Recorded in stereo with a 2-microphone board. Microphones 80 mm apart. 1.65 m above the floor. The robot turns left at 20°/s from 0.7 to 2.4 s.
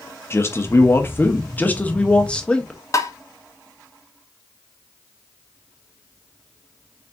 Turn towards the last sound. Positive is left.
turn(degrees=40)  # may be behind; listen again after turning